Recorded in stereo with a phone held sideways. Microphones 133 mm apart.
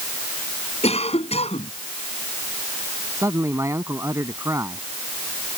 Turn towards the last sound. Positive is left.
turn(degrees=-20)  # may be behind; listen again after turning